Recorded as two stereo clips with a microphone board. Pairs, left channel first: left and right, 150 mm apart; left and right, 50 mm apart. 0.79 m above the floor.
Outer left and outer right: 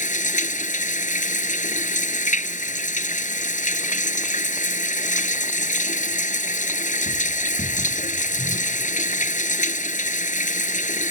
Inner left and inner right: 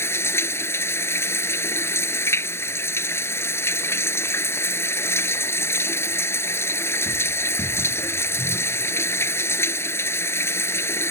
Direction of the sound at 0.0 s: 55° left (ahead or behind).